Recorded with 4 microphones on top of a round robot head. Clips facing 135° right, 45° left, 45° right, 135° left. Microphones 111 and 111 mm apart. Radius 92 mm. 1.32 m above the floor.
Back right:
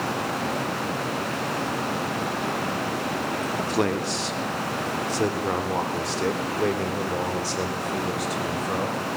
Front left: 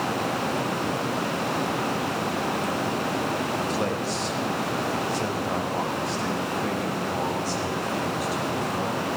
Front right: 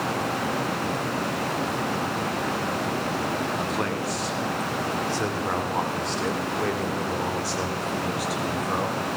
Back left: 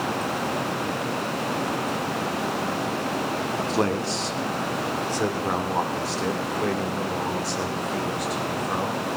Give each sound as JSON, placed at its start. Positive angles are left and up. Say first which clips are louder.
{"t": 3.6, "sound": "a man speaking", "louder": "back right 2 dB, back left 3 dB", "azimuth_deg": -170, "distance_m": 3.0}